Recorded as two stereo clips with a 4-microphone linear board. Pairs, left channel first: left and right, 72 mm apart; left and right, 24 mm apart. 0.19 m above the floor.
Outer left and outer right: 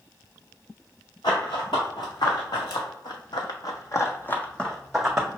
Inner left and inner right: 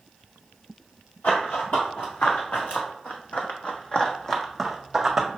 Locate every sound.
1.2 s running footsteps: 80° left, 1.7 m; by 5.3 s 10° right (ahead or behind), 0.8 m